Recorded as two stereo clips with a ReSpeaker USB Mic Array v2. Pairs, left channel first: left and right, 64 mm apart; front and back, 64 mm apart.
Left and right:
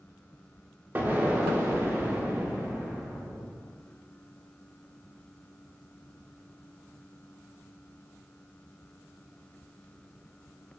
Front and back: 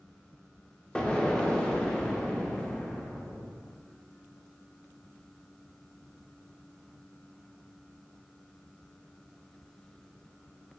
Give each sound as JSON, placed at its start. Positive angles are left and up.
{"t": 0.9, "sound": "an explosion", "azimuth_deg": -60, "distance_m": 0.5}